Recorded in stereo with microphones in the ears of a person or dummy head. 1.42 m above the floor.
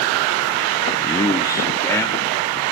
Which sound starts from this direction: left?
A man speaking, at 1.0 s.